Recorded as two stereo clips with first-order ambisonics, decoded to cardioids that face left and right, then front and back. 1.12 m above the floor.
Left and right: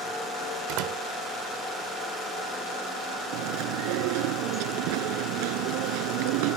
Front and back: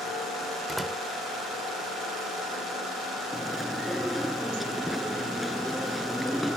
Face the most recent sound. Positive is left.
turn(degrees=-90)